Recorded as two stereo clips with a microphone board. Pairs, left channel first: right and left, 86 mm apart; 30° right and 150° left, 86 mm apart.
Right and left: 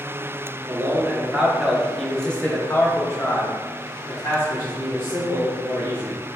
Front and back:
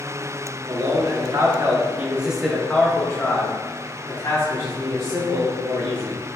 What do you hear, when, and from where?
0.7 s a man speaking: 155° left, 1.1 m; by 6.2 s 45° right, 2 m